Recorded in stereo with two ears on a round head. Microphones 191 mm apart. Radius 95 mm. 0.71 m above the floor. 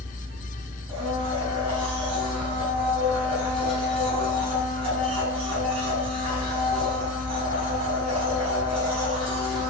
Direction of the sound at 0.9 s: 30° right (ahead or behind).